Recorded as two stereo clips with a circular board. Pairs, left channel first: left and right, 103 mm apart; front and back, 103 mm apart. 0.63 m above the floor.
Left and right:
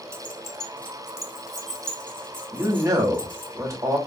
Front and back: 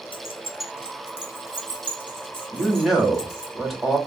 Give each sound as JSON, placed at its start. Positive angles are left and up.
{"t": 0.1, "sound": "keys jangling", "azimuth_deg": -25, "distance_m": 0.6}
{"t": 2.5, "sound": "a man speaking", "azimuth_deg": -95, "distance_m": 1.1}